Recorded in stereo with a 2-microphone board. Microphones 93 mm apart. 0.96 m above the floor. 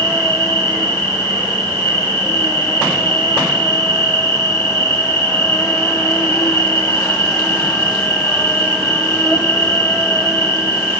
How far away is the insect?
About 0.8 m.